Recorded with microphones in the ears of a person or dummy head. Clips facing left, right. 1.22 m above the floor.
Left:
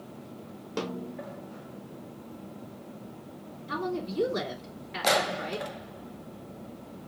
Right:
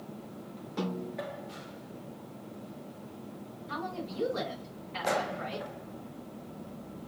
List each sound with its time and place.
0.8 s a snare drum: 75° left (ahead or behind), 1.6 m
3.7 s a woman speaking: 75° left (ahead or behind), 3.5 m